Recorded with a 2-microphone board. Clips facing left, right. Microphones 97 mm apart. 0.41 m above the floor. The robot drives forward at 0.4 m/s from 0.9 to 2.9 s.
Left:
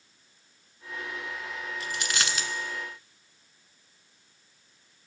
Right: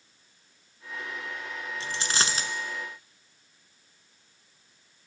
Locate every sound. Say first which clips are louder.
1.8 s a dropped coin: right 2 dB; 30° right (ahead or behind), 1.3 m; by 2.5 s 35° right (ahead or behind), 1.1 m